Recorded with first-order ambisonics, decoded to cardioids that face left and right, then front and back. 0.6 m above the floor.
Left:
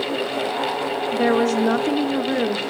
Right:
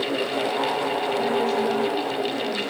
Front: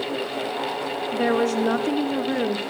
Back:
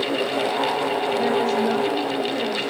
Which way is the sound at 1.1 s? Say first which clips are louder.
Left 6 dB, front 2 dB; 65° left.